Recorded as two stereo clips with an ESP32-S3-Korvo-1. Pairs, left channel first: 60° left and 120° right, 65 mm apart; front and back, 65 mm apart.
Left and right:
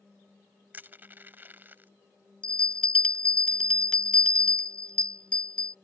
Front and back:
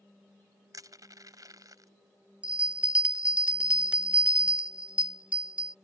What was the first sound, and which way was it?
Crushing, 175° right.